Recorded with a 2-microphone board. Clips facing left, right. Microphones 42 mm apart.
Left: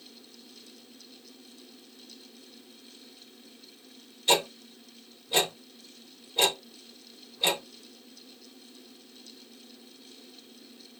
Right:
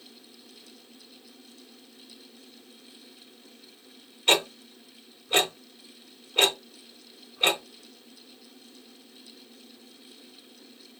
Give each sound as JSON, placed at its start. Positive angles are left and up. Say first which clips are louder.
{"t": 4.3, "sound": "ticking", "louder": "right 2 dB", "side_deg": -55, "distance_m": 2.5}